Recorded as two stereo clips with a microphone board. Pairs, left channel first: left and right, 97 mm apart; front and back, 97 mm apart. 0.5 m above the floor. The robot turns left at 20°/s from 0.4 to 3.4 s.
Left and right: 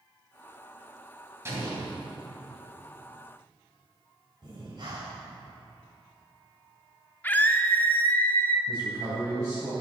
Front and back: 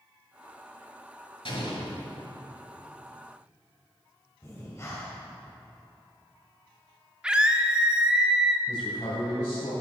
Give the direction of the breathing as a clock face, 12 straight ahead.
2 o'clock.